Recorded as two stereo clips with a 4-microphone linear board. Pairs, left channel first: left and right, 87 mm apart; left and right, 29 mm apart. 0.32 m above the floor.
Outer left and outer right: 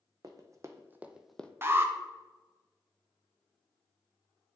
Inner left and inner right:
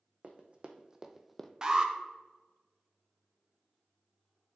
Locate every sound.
0.2 s running footsteps: 45° right (ahead or behind), 1.0 m; by 1.5 s 15° left (ahead or behind), 0.5 m
1.6 s an alarm: 25° right (ahead or behind), 0.7 m